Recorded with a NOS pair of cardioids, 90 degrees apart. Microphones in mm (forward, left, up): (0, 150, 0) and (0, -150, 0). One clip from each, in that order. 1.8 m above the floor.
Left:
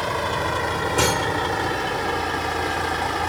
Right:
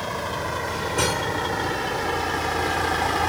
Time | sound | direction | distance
0.0 | a vehicle | 35° left | ?